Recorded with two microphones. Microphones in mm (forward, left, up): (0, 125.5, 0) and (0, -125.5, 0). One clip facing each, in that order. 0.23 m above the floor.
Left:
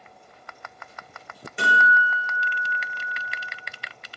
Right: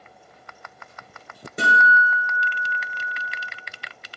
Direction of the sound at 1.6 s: 45° right (ahead or behind).